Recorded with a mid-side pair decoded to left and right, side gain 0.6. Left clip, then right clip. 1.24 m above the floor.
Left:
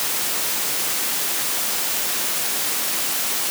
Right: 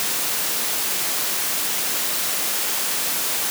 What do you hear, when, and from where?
Only background noise.